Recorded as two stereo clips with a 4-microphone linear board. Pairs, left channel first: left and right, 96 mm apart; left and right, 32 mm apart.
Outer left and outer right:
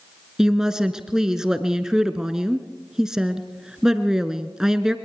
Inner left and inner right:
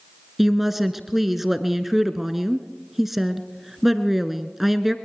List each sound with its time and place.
0.4 s a woman speaking: 5° right (ahead or behind), 1.2 m